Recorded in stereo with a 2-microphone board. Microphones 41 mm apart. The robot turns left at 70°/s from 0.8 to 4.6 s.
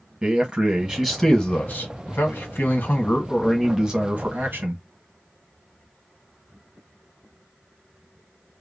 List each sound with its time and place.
0.2 s a man speaking: 160° right, 1.3 m; by 4.8 s 65° right, 1.3 m